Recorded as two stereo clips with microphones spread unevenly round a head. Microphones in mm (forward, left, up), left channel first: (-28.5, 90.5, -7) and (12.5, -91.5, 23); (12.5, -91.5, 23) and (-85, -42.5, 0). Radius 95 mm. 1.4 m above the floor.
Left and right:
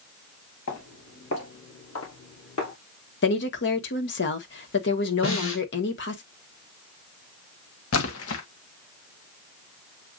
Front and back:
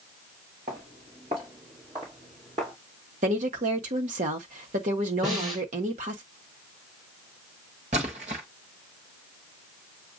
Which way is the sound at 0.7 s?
100° left.